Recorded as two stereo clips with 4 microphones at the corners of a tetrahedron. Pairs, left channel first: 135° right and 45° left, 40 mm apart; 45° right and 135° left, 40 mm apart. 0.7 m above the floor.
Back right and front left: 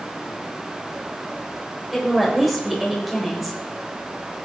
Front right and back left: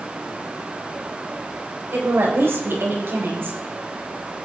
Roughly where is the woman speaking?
Behind left.